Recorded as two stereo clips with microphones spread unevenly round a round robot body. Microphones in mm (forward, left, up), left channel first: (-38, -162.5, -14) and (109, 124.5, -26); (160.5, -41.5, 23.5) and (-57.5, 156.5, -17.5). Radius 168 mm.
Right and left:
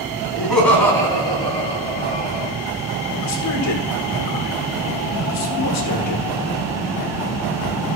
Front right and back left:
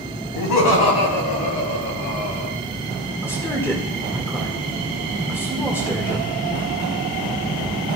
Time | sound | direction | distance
0.3 | laughter | 25° right | 3 m
3.2 | a man speaking | 130° right | 1.7 m